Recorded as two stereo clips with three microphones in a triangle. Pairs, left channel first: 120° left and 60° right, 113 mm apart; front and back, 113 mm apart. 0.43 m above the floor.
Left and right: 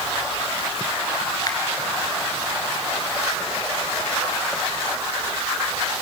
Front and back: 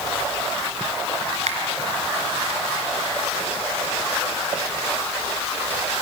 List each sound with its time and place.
1.5 s a finger snap: 175° left, 4.5 m